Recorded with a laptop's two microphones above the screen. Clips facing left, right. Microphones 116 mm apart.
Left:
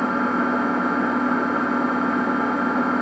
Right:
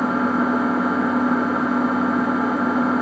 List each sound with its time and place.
0.0 s an engine running: 5° right (ahead or behind), 1.1 m